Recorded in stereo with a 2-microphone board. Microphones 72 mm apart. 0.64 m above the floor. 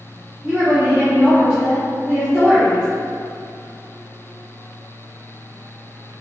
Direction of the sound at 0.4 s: 25° right (ahead or behind).